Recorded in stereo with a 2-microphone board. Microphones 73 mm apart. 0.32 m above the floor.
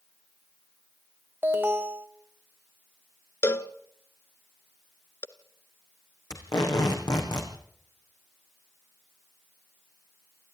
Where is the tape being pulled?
65° left (ahead or behind), 4.5 m.